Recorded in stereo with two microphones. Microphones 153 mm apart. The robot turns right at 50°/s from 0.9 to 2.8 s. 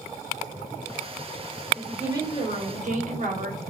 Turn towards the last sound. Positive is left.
turn(degrees=-125)